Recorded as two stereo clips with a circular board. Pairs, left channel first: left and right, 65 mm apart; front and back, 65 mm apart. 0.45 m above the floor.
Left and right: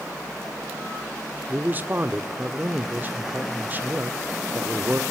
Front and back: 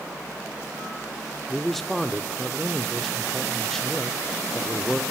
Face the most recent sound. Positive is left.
turn(degrees=-80)